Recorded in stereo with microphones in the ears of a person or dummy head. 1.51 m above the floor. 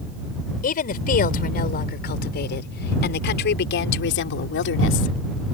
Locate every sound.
0.6 s a woman speaking: 50° left (ahead or behind); by 5.2 s 75° left (ahead or behind)